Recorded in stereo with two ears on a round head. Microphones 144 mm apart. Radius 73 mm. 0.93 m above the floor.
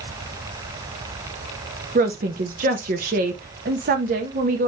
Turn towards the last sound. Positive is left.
turn(degrees=-55)  # may be behind; listen again after turning